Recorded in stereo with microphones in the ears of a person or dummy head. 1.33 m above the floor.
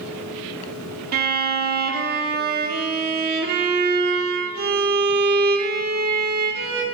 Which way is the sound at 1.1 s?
55° right (ahead or behind).